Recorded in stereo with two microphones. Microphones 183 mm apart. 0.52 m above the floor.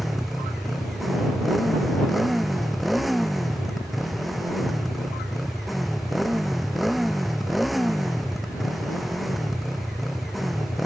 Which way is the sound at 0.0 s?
Centre (ahead or behind).